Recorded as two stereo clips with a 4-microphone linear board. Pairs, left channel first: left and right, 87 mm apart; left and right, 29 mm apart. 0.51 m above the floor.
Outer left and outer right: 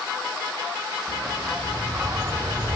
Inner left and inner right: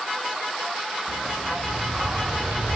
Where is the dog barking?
15° right (ahead or behind), 3 m; by 2.8 s 55° right (ahead or behind), 1.1 m.